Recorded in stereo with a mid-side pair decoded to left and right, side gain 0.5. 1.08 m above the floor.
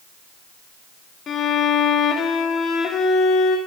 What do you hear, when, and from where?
1.3 s a violin: 50° left, 1.9 m